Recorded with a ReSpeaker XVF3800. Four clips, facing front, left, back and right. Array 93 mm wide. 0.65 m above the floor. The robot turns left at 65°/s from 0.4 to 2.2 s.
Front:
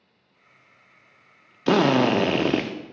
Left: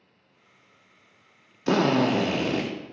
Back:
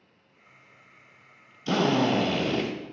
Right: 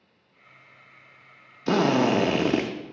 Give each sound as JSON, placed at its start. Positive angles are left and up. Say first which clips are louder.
{"t": 1.7, "sound": "a drill", "louder": "even, front 5 dB", "azimuth_deg": 10, "distance_m": 0.5}